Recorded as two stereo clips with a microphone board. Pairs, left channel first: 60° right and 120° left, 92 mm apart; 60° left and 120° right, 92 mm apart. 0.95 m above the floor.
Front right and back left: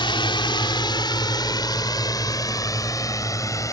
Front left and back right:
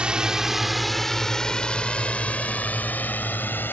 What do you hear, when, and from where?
0.0 s a drone: 45° right; by 3.7 s 5° right